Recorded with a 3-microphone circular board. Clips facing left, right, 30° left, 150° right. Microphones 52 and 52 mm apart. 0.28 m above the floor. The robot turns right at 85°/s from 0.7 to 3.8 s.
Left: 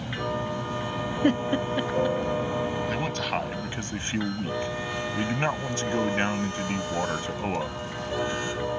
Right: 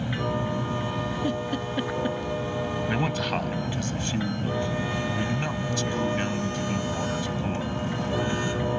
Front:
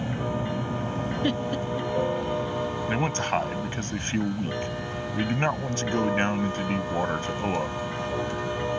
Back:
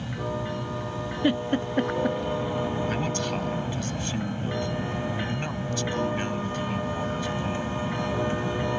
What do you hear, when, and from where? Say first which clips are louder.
0.0 s an aircraft: right 2 dB, front 2 dB; 15° right; by 8.8 s 110° right
1.2 s a giggle: left 4 dB, back 5 dB; 130° left; by 2.2 s 150° right
2.9 s a man speaking: right 2 dB, front 2 dB; 25° right; by 7.8 s 50° left